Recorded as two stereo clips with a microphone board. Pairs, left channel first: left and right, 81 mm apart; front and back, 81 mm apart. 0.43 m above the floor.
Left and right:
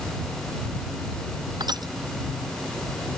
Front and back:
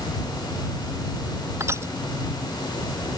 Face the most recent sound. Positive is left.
turn(degrees=-125)